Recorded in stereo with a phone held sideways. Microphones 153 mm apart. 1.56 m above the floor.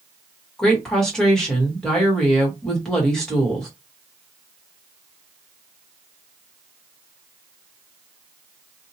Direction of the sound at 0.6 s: 5° left (ahead or behind).